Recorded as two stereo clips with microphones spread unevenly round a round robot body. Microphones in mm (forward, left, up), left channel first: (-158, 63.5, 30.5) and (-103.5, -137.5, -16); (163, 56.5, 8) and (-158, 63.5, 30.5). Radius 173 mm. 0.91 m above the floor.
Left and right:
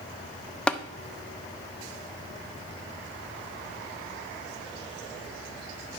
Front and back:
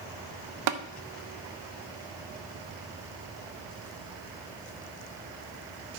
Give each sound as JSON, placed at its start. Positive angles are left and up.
{"t": 0.7, "sound": "tapping", "azimuth_deg": -160, "distance_m": 0.6}